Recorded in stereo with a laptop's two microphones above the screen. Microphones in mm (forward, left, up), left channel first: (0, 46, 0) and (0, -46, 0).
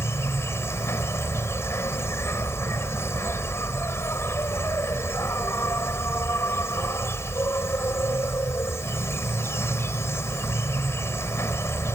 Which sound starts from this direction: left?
An insect, at 0.0 s.